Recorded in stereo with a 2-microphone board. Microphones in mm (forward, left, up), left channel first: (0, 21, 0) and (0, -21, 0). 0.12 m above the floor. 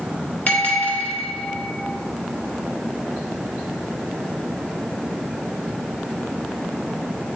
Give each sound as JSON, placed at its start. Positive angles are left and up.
{"t": 0.5, "sound": "a bell", "side_deg": 45, "distance_m": 2.0}